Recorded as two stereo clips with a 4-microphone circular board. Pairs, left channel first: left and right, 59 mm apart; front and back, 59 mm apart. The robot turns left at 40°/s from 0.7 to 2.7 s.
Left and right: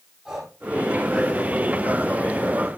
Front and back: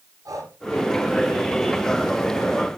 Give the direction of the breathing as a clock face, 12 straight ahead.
6 o'clock.